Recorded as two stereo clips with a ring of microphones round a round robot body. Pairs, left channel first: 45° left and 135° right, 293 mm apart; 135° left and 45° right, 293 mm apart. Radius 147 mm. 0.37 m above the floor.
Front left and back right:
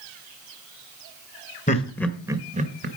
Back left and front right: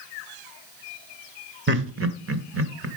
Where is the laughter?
10° right, 1.2 m; by 2.9 s 85° right, 1.6 m.